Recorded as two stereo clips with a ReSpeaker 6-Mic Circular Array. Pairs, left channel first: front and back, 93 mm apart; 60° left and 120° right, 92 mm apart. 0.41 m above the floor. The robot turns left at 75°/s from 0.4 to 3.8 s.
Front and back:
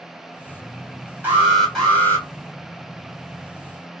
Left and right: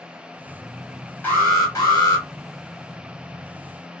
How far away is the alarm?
About 2.5 m.